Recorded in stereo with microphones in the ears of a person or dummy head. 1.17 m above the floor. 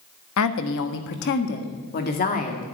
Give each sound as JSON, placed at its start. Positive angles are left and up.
{"t": 0.4, "sound": "a woman speaking", "side_deg": 80, "distance_m": 1.3}